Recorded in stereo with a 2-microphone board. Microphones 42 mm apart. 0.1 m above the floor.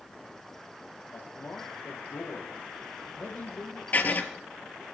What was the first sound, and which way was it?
A man speaking, 60° left (ahead or behind).